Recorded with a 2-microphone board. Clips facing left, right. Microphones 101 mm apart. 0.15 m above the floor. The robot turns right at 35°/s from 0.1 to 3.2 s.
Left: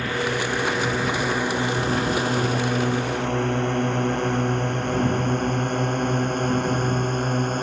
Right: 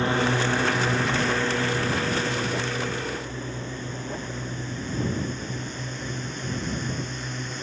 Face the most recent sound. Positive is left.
turn(degrees=55)  # may be behind; listen again after turning